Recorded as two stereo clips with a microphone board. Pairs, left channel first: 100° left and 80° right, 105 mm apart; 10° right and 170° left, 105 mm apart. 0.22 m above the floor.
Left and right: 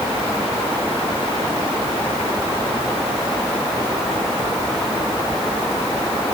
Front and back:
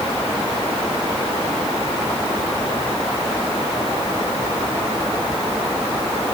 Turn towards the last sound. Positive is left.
No sound to turn to.